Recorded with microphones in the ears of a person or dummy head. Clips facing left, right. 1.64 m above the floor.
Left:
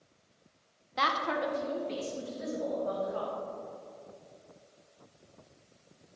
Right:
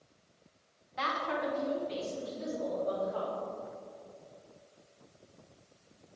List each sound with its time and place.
1.0 s a woman speaking: 65° left (ahead or behind), 0.9 m; by 3.3 s 30° left (ahead or behind), 3.5 m